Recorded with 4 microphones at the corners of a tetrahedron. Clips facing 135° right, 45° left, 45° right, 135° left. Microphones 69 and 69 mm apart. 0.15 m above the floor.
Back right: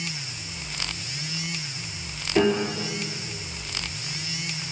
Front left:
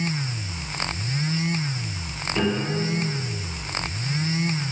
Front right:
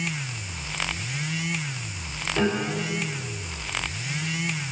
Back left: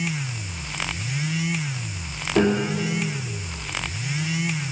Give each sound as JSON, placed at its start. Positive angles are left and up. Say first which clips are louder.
{"t": 2.4, "sound": "a piano", "louder": "back right 3 dB, back left 5 dB", "azimuth_deg": 165, "distance_m": 4.0}